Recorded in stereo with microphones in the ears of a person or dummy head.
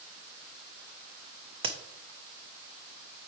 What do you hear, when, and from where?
1.6 s a crack: 25° right (ahead or behind), 0.6 m